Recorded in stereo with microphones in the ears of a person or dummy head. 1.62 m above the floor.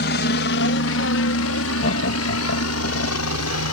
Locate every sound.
0.0 s a helicopter: 55° left (ahead or behind); by 3.7 s 75° left (ahead or behind)
1.8 s laughter: 60° left (ahead or behind)